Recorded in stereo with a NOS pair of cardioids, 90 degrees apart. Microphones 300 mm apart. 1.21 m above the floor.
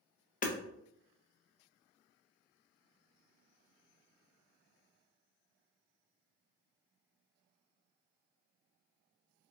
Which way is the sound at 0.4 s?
30° left.